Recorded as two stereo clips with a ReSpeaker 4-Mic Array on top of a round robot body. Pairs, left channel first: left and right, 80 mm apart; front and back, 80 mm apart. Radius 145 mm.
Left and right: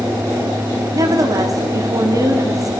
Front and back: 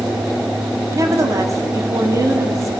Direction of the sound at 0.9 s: 130° right.